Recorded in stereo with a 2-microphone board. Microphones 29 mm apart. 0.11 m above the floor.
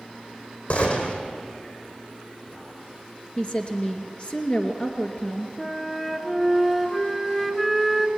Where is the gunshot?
60° left (ahead or behind), 4 m.